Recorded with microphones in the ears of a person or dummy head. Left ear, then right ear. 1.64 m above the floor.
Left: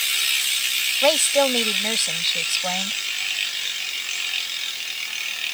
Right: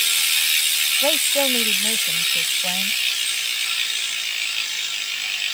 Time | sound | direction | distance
1.0 | a woman speaking | 30° left (ahead or behind) | ?